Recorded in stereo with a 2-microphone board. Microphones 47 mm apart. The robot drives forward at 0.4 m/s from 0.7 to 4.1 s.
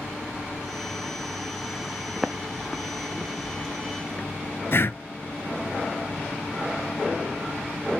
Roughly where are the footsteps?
Centre.